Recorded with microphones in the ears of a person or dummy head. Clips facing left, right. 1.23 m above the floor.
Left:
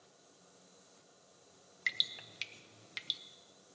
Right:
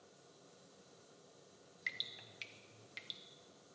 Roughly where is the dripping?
Left.